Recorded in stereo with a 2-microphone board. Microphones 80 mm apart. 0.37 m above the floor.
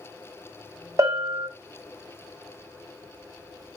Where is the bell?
45° right (ahead or behind), 0.8 m.